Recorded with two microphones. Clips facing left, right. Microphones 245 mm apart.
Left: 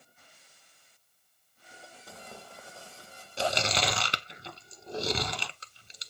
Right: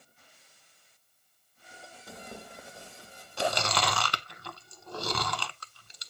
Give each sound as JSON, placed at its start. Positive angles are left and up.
{"t": 2.1, "sound": "tearing paper", "side_deg": -20, "distance_m": 0.9}
{"t": 3.4, "sound": "chewing", "side_deg": 25, "distance_m": 0.6}